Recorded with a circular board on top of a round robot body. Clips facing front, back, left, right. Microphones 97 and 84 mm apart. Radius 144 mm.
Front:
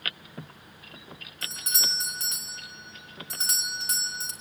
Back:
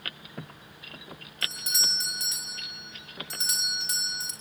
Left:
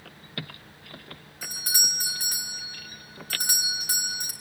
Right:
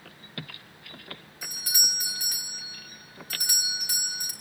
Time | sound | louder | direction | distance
1.4 | a doorbell | even, left 3 dB | 40° left | 4.5 m